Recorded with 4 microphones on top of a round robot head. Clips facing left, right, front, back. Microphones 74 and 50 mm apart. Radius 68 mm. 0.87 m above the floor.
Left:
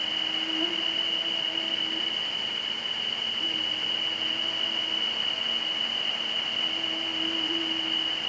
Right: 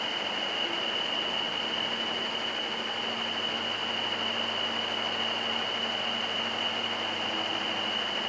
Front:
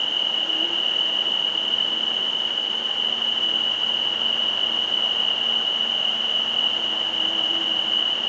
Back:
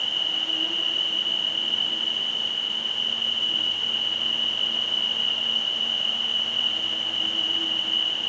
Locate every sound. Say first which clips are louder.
0.0 s an insect: right 1 dB, front 3 dB; 60° left, 1.2 m